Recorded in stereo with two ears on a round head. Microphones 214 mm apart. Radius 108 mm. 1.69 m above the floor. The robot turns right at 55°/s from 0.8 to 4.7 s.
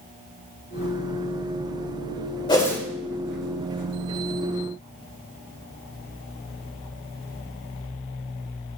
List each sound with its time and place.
2.5 s a whoosh: 20° left (ahead or behind), 1.8 m; by 2.8 s 5° left (ahead or behind), 1.8 m